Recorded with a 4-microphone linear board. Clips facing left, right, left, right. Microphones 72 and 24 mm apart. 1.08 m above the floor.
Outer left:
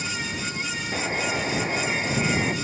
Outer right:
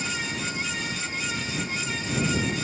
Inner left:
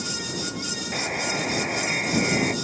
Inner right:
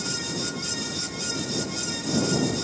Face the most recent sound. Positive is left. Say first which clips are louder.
# outer left 5 dB, inner left 4 dB
turn(degrees=90)